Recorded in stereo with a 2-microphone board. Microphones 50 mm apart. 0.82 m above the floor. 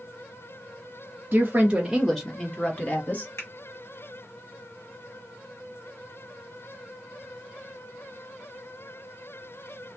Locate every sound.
1.3 s a woman speaking: 35° right (ahead or behind), 0.9 m; by 3.3 s 40° left (ahead or behind), 1.2 m
3.4 s a finger snap: 60° left (ahead or behind), 1.7 m